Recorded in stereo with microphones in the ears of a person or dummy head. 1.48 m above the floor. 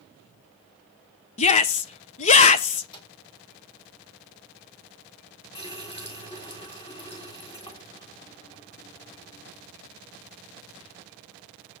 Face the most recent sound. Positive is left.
turn(degrees=30)  # may be behind; listen again after turning